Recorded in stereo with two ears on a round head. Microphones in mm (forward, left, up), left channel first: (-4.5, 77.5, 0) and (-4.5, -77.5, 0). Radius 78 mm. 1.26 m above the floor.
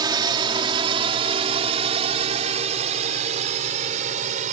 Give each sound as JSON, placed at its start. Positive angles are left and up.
{"t": 0.0, "sound": "a drone", "side_deg": -25}